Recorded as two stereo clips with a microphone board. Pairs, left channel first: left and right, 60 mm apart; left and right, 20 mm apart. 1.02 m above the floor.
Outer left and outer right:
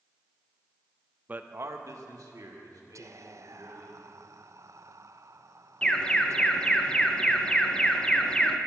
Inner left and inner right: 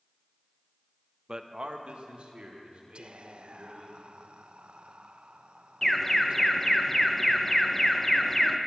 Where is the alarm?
15° left (ahead or behind), 0.9 m.